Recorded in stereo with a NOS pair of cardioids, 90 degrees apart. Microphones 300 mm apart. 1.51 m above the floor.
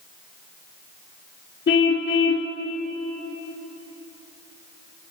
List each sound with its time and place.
1.7 s a car horn: 40° left, 2.5 m